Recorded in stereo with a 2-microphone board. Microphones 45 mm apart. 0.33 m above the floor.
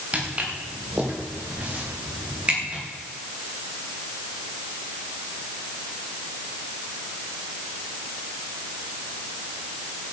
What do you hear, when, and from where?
0.1 s footsteps: 30° right (ahead or behind), 5.5 m